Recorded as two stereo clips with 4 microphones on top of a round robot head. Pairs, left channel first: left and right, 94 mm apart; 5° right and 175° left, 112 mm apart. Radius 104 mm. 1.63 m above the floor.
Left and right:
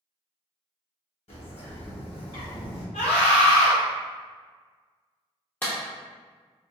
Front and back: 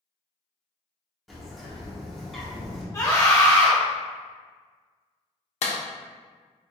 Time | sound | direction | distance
1.3 | a bird | 85° left | 0.9 m
2.9 | a scream | 50° left | 0.7 m
5.6 | a clap | 15° left | 0.6 m